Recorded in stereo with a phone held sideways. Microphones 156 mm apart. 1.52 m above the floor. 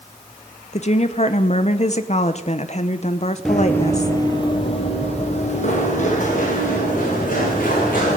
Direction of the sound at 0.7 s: 45° left (ahead or behind).